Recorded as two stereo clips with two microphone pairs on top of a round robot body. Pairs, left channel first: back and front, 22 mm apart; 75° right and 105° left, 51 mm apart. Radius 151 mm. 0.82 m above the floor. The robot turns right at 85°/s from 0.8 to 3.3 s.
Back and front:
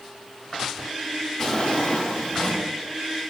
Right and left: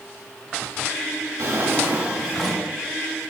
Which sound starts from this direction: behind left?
A drawer, at 1.4 s.